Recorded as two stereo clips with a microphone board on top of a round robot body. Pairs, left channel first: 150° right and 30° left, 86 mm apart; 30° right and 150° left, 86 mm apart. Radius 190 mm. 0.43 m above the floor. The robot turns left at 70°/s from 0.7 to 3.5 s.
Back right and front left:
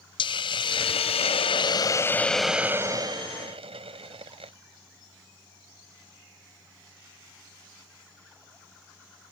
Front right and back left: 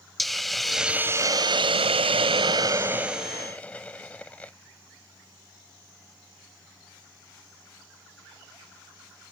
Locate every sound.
0.2 s a hiss: 120° right; by 4.5 s 45° left